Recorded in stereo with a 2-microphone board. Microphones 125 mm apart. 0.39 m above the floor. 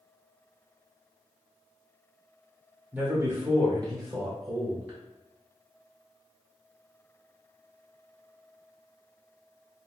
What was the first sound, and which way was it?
A man speaking, 10° right (ahead or behind).